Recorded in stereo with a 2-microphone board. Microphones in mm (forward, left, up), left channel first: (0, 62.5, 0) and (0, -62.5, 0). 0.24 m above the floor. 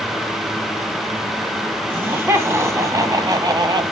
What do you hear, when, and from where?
1.9 s laughter: 15° right (ahead or behind), 1.7 m; by 3.8 s 35° right (ahead or behind), 1.2 m